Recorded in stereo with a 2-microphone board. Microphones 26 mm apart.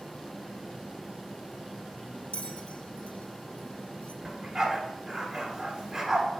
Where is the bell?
55° left (ahead or behind), 0.8 m.